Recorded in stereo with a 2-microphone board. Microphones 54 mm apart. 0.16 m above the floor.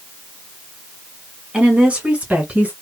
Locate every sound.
1.5 s a woman speaking: 20° right (ahead or behind), 1.5 m; by 2.7 s 30° right (ahead or behind), 1.9 m